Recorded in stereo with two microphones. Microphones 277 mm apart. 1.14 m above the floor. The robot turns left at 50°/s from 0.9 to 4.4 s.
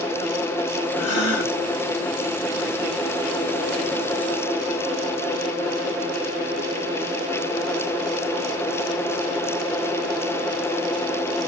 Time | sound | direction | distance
1.0 | a gasp | 25° left (ahead or behind) | 2.5 m